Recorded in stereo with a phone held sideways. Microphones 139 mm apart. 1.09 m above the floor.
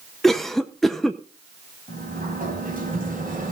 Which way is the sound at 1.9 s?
85° right.